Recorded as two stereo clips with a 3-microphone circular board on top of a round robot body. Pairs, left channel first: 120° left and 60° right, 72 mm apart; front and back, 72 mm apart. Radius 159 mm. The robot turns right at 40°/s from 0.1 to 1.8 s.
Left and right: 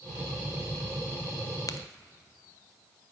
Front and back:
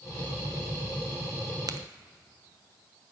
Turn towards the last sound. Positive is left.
turn(degrees=160)